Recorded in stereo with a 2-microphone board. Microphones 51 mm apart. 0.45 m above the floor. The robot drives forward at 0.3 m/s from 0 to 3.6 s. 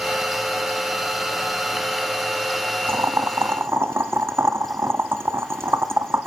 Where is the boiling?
70° right (ahead or behind), 0.5 m; by 6.3 s 65° right (ahead or behind), 0.6 m.